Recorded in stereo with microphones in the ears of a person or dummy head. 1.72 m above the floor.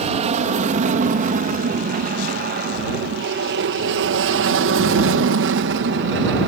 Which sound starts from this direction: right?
An aircraft, at 0.0 s.